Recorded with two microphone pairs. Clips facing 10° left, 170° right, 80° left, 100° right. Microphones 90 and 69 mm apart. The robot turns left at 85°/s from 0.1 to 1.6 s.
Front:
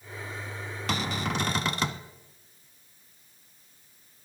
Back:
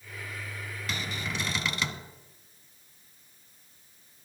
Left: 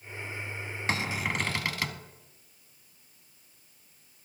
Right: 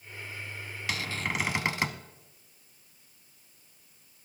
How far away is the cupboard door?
About 0.6 m.